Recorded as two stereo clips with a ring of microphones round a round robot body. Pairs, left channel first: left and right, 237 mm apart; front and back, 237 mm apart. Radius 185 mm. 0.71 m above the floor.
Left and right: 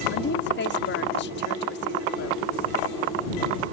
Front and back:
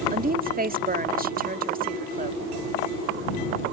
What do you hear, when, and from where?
0.1 s a woman speaking: 130° left